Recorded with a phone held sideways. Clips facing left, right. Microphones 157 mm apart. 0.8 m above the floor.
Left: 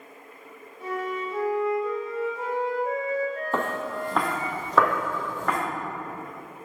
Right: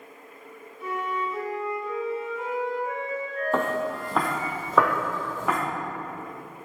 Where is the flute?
40° left (ahead or behind), 1.7 m.